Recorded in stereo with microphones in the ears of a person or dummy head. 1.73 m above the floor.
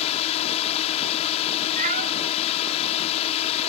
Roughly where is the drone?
Left.